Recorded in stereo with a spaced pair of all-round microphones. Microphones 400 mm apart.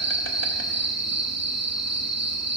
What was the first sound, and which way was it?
An insect, 40° right (ahead or behind).